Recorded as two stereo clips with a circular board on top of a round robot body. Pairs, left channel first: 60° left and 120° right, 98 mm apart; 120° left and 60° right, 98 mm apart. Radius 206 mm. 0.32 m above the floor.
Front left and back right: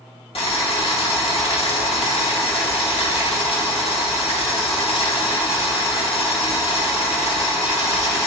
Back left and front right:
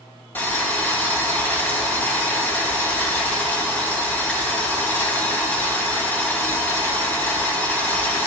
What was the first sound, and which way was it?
Boiling, 50° left.